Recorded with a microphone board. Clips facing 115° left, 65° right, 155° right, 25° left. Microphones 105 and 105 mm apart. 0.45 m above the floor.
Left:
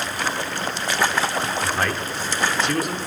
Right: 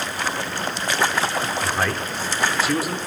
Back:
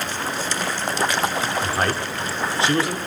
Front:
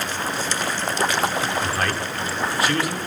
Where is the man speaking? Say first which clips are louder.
Even, back 1 dB; 145° right, 0.7 m.